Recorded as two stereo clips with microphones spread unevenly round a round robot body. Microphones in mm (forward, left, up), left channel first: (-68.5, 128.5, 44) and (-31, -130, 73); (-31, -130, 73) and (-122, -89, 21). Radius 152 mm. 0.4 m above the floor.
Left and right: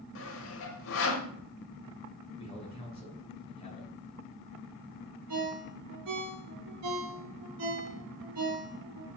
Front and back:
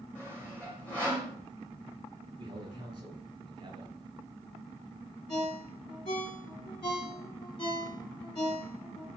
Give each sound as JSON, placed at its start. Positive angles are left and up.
{"t": 0.1, "sound": "sawing", "azimuth_deg": 65, "distance_m": 0.9}
{"t": 2.4, "sound": "a man speaking", "azimuth_deg": 160, "distance_m": 3.5}
{"t": 5.3, "sound": "a ringtone", "azimuth_deg": -45, "distance_m": 3.0}